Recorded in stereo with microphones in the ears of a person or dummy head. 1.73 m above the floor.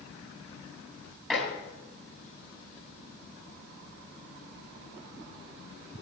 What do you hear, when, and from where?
1.3 s dishes clattering: 5° left (ahead or behind), 8.5 m